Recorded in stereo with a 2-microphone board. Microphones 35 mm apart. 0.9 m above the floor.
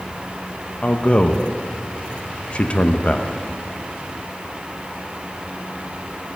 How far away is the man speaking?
About 0.7 m.